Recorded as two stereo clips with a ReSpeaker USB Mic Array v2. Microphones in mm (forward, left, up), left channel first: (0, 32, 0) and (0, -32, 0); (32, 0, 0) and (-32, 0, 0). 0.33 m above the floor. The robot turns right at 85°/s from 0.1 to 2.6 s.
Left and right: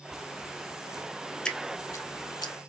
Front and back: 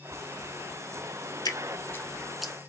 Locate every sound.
1.4 s dripping: 10° left, 0.6 m; by 2.5 s 105° left, 0.6 m